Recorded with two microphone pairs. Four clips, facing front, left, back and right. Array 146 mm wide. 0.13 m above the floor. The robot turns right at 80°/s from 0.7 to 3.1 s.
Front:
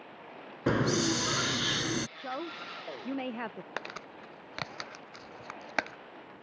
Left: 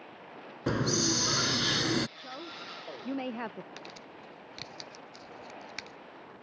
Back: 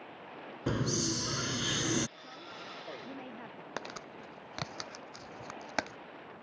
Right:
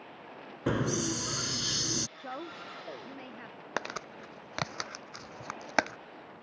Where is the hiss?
10° right; by 2.1 s 100° left.